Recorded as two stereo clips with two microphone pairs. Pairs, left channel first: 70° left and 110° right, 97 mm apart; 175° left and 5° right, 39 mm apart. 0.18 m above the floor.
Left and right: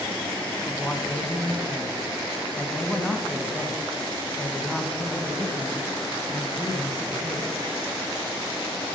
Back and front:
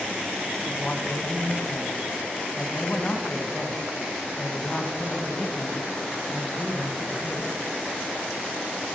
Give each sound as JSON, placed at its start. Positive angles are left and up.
{"t": 0.7, "sound": "a man speaking", "azimuth_deg": 145, "distance_m": 1.3}